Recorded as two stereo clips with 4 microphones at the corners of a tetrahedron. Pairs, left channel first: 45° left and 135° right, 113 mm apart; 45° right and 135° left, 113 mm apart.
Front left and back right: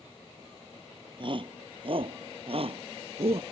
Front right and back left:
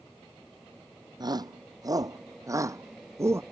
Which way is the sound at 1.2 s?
175° right.